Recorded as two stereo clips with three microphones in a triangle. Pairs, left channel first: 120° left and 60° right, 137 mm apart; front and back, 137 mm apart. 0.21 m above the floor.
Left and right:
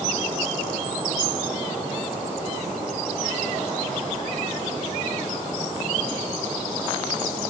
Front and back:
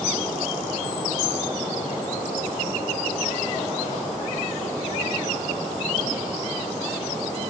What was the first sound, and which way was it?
Only background noise.